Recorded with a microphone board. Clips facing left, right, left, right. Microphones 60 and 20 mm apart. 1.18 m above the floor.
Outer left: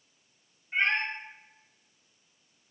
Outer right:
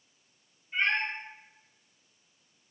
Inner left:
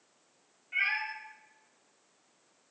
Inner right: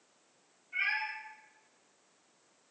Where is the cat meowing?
60° left (ahead or behind), 1.9 m.